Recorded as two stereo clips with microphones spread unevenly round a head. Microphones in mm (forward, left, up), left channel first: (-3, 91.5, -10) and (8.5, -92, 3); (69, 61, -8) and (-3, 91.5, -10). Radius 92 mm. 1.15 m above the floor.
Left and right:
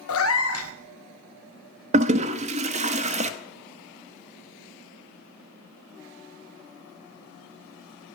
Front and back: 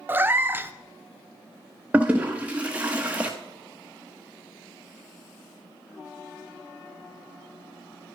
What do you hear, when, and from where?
0.1 s a cat meowing: 90° left, 0.8 m
1.9 s a toilet flushing: 130° right, 0.7 m